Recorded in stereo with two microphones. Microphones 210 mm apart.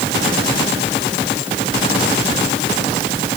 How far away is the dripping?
I don't hear dripping.